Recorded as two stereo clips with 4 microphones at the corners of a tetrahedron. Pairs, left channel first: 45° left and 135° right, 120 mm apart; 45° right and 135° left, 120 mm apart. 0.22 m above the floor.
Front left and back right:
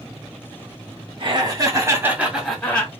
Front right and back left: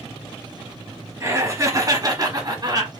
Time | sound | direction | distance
1.2 | laughter | 165° right | 2 m